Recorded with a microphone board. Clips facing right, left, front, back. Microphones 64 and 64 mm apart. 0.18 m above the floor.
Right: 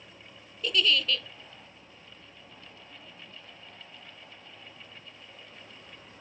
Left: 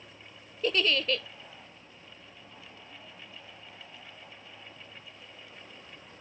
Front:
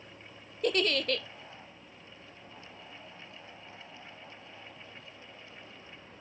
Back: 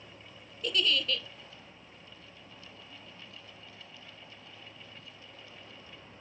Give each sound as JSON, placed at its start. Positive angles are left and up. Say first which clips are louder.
{"t": 0.6, "sound": "a giggle", "louder": "even, front 3 dB", "azimuth_deg": 35, "distance_m": 0.5}